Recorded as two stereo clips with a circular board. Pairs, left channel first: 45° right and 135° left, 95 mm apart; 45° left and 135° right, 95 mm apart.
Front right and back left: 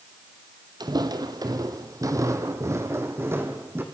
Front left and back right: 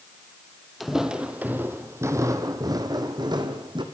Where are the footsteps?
135° left, 2.0 m; by 3.8 s 160° right, 3.5 m.